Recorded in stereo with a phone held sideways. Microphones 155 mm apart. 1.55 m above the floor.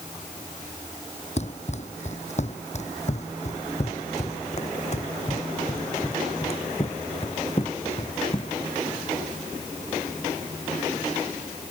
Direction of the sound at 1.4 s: 45° left (ahead or behind).